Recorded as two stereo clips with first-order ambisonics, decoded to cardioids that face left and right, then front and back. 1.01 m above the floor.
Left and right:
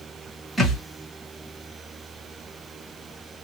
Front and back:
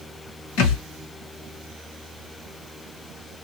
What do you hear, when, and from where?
0.6 s a thud: straight ahead, 1.8 m